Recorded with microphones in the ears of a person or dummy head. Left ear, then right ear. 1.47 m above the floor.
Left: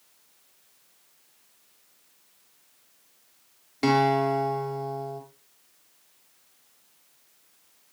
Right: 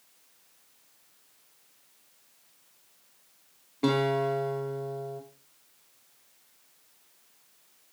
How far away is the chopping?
No chopping in this recording.